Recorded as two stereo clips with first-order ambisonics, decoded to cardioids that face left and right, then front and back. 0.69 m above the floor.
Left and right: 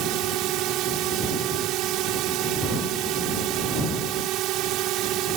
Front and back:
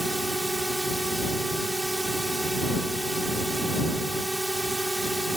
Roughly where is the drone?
Right.